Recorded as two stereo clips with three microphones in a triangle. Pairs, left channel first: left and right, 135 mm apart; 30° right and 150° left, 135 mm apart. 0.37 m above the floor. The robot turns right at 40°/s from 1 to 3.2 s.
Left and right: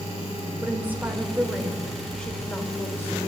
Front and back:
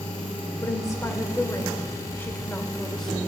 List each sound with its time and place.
0.6 s a woman speaking: 35° right, 0.9 m; by 3.2 s 55° left, 0.9 m